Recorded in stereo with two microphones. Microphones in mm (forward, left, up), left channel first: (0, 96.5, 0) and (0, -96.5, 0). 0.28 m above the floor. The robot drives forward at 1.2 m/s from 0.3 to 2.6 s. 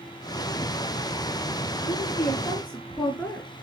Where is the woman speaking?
5° left (ahead or behind), 4 m; by 3.5 s 10° left (ahead or behind), 3 m.